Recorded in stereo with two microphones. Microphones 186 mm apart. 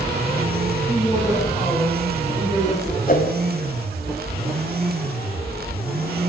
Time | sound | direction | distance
0.9 | a woman speaking | 10° right (ahead or behind) | 7.5 m
3.1 | a whoosh | 50° left (ahead or behind) | 1.7 m